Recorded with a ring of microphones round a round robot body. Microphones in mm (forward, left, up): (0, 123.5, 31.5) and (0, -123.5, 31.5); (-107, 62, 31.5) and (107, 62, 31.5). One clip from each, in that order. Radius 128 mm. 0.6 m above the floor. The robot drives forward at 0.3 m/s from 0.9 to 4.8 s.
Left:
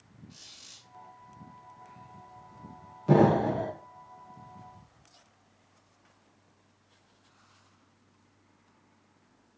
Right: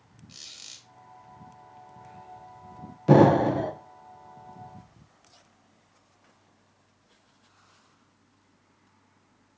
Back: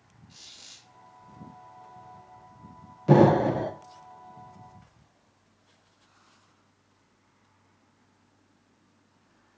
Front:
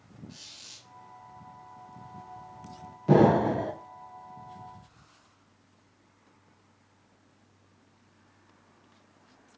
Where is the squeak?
70° right, 1.3 m.